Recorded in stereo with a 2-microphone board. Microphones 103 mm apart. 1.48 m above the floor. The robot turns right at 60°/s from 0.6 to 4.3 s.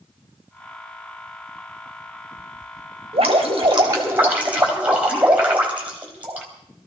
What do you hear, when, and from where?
3.1 s dripping: 85° right, 3.5 m; by 6.5 s 15° right, 3.5 m